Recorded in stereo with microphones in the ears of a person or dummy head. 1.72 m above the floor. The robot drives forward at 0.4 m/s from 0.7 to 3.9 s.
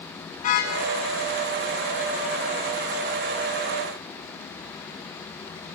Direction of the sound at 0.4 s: 45° left (ahead or behind).